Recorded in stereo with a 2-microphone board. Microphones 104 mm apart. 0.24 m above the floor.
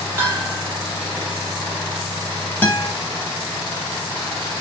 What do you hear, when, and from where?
0.2 s a bell: 25° right (ahead or behind), 1.0 m
2.6 s a guitar: 20° left (ahead or behind), 0.7 m